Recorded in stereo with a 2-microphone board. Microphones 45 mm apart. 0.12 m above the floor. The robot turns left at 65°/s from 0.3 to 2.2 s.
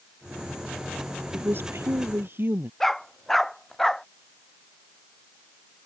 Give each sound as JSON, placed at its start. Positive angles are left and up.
{"t": 1.3, "sound": "a woman speaking", "azimuth_deg": -55}
{"t": 2.8, "sound": "a dog barking", "side_deg": 5}